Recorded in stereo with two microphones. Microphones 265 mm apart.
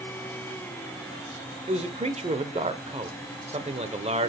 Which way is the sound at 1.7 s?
25° right (ahead or behind).